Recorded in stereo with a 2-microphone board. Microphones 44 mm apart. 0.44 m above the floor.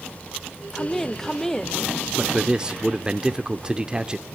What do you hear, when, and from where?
0.7 s a woman speaking: 5° left (ahead or behind), 1.1 m
2.1 s a man speaking: 20° right (ahead or behind), 0.8 m